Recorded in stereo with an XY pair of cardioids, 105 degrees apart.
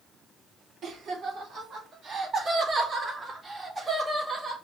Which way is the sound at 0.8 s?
70° right.